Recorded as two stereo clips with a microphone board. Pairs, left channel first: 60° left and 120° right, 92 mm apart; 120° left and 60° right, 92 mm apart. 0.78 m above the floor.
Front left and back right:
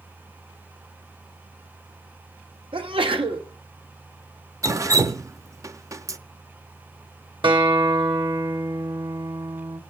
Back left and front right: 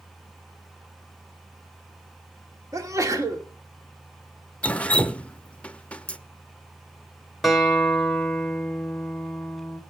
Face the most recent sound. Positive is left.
turn(degrees=-150)